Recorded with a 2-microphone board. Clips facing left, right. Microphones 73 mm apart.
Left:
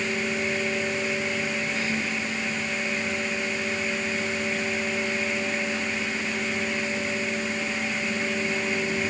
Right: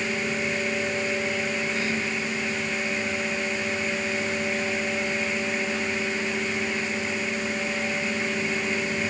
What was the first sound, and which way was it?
Only background noise.